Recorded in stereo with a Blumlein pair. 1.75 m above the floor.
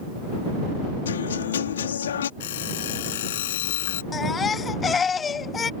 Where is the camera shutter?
I don't hear a camera shutter.